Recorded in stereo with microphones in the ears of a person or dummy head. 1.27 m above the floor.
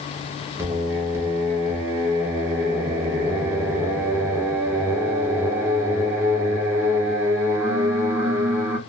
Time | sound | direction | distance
0.6 | singing | 10° right (ahead or behind) | 0.7 m